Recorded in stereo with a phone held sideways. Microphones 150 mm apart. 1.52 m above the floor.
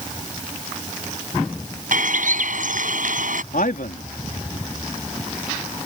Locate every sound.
1.9 s a bird: 65° right (ahead or behind)
3.5 s a man speaking: 85° left